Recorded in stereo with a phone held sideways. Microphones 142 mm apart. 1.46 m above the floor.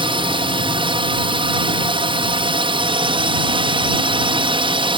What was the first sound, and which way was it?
A drone, 35° right (ahead or behind).